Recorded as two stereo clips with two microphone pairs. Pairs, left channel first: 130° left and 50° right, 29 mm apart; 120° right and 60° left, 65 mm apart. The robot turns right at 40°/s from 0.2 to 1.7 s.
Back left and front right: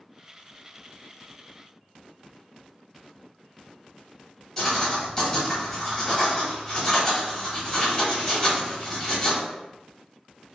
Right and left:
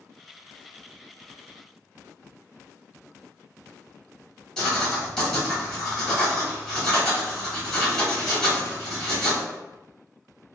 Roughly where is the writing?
Behind.